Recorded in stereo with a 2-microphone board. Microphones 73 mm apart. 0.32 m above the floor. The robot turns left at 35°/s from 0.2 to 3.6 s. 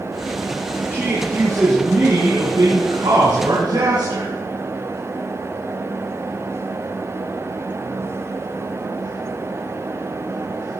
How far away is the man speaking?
About 4 m.